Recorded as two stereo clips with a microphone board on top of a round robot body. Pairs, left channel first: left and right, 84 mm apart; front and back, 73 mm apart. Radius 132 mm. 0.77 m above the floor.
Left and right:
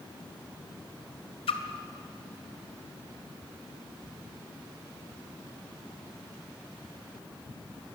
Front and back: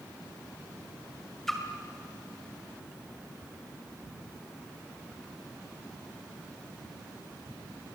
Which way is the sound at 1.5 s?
85° left.